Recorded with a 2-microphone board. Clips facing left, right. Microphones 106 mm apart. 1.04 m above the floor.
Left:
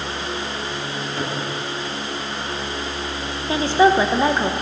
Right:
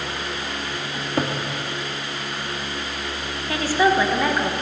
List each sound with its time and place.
0.9 s a cupboard door: 55° right (ahead or behind), 1.4 m
3.5 s a woman speaking: 25° left (ahead or behind), 0.8 m